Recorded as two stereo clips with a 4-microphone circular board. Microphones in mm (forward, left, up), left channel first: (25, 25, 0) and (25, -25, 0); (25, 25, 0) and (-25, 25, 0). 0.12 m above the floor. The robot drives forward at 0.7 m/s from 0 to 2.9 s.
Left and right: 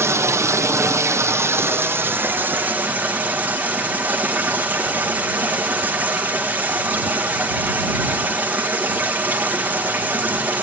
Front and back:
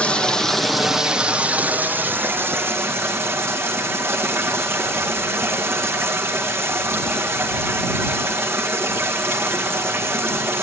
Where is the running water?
65° right, 1.2 m; by 10.6 s 145° right, 1.9 m.